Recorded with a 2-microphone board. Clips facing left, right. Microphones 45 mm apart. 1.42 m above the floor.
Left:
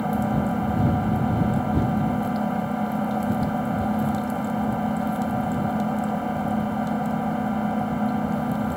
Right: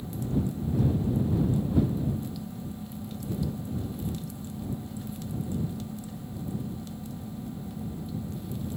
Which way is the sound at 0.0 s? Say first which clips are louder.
Left 8 dB; 65° left (ahead or behind).